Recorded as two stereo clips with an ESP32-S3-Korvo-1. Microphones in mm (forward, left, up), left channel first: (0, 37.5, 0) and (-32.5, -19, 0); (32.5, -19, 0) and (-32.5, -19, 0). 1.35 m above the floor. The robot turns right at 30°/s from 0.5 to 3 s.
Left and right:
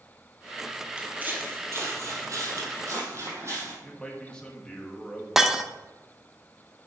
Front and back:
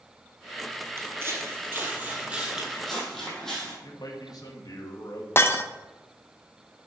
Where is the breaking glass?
40° right, 0.6 m.